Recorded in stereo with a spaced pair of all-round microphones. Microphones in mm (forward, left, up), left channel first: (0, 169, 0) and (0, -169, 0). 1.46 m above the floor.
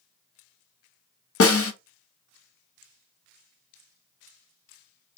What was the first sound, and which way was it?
A snare drum, 40° left (ahead or behind).